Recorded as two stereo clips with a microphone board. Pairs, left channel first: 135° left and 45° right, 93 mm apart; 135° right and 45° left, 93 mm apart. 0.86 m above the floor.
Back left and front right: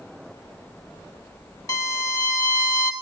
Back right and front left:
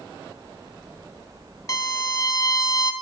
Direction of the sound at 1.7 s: Straight behind.